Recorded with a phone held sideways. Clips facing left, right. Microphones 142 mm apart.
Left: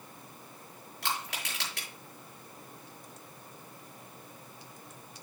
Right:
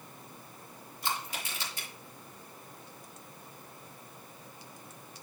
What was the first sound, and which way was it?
Crushing, 75° left (ahead or behind).